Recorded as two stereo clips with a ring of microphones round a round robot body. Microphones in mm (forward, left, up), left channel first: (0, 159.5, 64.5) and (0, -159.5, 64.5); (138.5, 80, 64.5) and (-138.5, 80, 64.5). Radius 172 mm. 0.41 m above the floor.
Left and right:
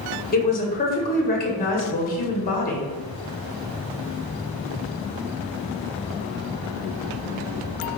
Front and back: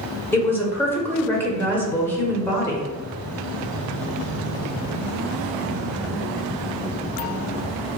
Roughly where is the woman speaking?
Left.